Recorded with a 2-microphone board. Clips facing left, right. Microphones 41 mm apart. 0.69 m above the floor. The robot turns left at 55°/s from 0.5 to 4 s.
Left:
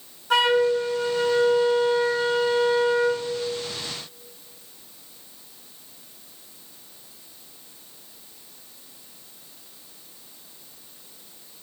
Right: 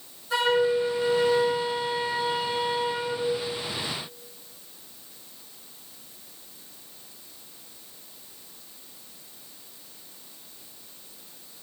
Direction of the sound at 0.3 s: 90° left.